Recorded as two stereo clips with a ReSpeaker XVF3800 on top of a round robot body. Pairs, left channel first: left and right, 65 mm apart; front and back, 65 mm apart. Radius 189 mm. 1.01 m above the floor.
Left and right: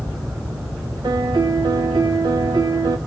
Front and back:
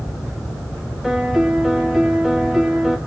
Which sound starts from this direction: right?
A piano, at 1.0 s.